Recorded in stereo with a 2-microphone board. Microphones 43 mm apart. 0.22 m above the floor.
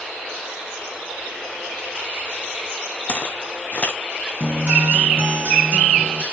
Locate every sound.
3.1 s footsteps: 40° left (ahead or behind), 2.5 m
4.4 s a guitar: 50° right (ahead or behind), 3 m